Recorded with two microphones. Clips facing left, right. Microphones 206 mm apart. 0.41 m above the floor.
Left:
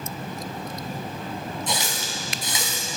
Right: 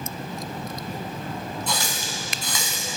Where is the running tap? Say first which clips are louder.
Even; 20° left (ahead or behind), 1.9 m.